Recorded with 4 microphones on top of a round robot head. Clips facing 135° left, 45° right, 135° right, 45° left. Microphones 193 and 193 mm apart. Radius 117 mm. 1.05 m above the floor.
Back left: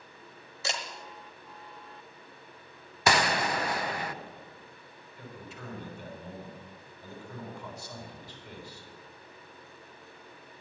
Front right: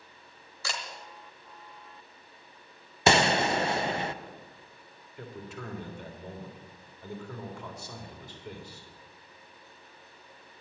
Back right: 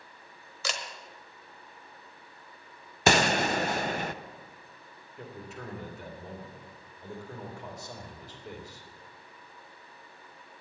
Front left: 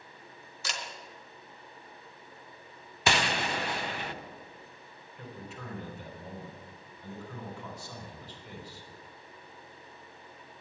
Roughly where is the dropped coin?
No dropped coin in this recording.